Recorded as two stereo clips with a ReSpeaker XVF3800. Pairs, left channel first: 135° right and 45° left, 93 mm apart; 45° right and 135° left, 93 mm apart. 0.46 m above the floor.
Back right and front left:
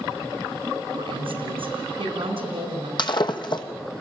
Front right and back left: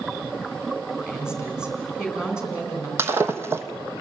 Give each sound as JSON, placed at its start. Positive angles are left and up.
{"t": 1.0, "sound": "a woman speaking", "azimuth_deg": 55, "distance_m": 4.0}
{"t": 3.0, "sound": "breaking glass", "azimuth_deg": -165, "distance_m": 1.0}